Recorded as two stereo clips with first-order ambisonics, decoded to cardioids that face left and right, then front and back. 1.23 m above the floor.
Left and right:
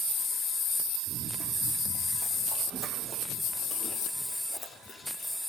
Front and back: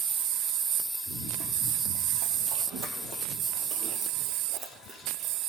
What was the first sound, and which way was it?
Running footsteps, 165° right.